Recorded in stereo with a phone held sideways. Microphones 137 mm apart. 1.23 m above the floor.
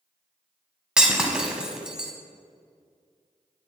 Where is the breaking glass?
5° right (ahead or behind), 1.1 m.